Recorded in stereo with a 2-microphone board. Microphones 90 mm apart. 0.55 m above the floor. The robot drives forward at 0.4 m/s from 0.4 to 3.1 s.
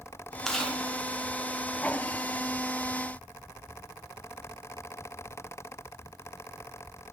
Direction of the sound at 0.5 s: 5° left (ahead or behind).